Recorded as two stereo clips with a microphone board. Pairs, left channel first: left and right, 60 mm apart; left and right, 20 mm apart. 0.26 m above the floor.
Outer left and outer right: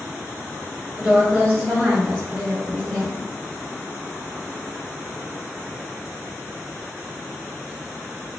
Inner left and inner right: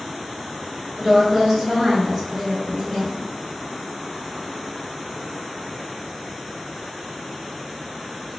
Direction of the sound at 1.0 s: 20° right (ahead or behind).